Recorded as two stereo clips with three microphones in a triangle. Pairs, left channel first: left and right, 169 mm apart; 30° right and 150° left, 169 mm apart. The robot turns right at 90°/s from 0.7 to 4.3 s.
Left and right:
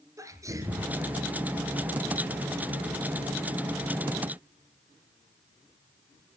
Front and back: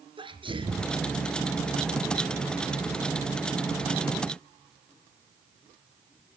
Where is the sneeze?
155° right, 2.5 m; by 0.9 s 135° right, 2.5 m.